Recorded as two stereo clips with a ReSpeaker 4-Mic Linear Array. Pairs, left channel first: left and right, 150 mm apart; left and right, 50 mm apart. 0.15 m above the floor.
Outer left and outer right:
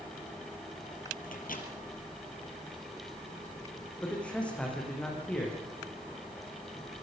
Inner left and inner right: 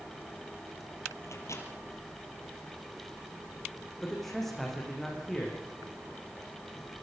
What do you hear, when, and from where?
1.2 s a microwave: 65° left (ahead or behind), 3.5 m
4.0 s a man speaking: 10° left (ahead or behind), 7.5 m